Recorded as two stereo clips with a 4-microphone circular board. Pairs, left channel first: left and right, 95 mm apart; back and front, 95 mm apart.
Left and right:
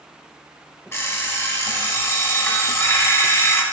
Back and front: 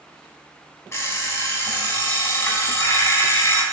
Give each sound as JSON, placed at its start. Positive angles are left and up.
{"t": 0.9, "sound": "an alarm clock", "azimuth_deg": 140, "distance_m": 0.8}